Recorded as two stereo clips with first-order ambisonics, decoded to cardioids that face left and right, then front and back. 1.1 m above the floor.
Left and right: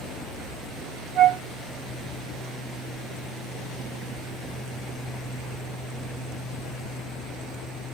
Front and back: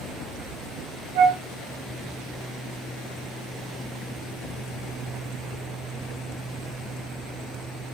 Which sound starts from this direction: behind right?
A flute, at 1.1 s.